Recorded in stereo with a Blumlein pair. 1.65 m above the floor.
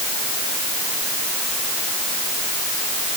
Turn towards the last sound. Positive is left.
No sound to turn to.